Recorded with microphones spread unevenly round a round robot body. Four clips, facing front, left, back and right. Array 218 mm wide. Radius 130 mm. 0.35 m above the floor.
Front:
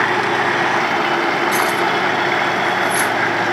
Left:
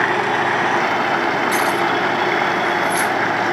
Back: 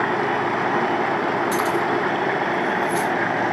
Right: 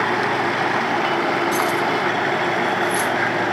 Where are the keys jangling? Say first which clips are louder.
Left 2 dB, front 3 dB; 170° right, 7 m; by 3.1 s 150° right, 6.5 m.